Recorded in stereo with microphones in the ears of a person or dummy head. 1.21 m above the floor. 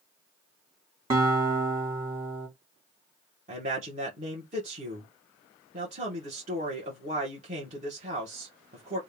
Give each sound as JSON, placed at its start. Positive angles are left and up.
{"t": 1.1, "sound": "a guitar", "side_deg": -15, "distance_m": 1.6}
{"t": 3.5, "sound": "a man speaking", "side_deg": -35, "distance_m": 1.1}